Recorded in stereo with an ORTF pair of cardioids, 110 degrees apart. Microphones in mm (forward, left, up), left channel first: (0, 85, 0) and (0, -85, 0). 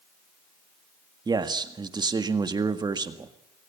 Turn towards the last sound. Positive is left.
turn(degrees=-25)